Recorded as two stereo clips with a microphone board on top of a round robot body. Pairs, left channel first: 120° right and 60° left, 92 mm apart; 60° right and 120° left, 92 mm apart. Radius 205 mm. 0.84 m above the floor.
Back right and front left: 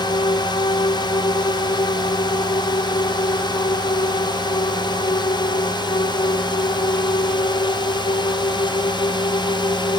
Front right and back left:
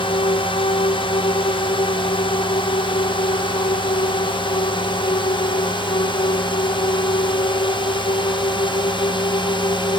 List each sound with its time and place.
0.0 s a drone: 80° right; by 10.0 s 85° right